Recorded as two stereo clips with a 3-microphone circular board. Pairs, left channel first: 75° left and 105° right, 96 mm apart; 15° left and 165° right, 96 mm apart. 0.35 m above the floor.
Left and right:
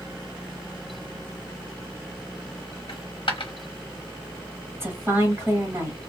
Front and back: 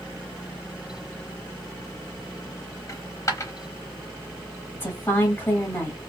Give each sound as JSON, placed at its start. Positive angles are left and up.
{"t": 2.9, "sound": "a dropped coin", "azimuth_deg": 70, "distance_m": 0.8}
{"t": 4.7, "sound": "a woman speaking", "azimuth_deg": -50, "distance_m": 1.3}